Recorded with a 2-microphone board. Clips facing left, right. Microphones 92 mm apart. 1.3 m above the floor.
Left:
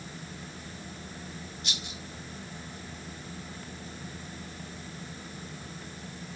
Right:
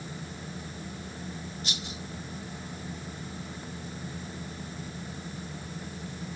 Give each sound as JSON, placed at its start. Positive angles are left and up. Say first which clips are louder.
{"t": 1.6, "sound": "a rattle", "louder": "right 2 dB", "side_deg": -35, "distance_m": 1.9}